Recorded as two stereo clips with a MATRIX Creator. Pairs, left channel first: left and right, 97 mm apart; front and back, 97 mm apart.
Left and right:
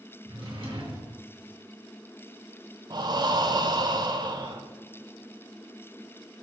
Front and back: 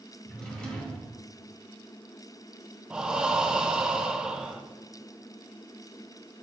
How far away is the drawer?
About 2 m.